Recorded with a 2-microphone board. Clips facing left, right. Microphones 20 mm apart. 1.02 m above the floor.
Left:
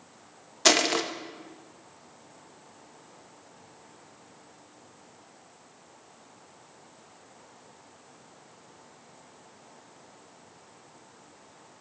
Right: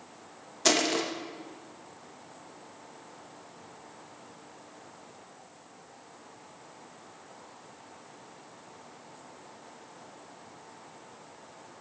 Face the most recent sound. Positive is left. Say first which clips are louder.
# left 3 dB
turn(degrees=25)  # may be behind; listen again after turning